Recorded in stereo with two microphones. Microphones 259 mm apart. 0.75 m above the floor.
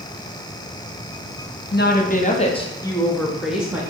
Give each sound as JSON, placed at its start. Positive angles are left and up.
{"t": 1.7, "sound": "a woman speaking", "side_deg": 40, "distance_m": 1.0}